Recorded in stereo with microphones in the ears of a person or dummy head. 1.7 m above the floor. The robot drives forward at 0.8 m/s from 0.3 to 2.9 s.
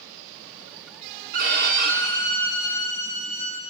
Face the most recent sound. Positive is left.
turn(degrees=-60)  # may be behind; listen again after turning